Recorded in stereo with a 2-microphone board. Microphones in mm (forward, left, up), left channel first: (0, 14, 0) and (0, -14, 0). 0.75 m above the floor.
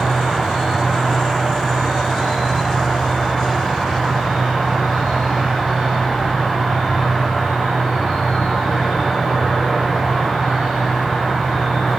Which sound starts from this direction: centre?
An insect, at 0.0 s.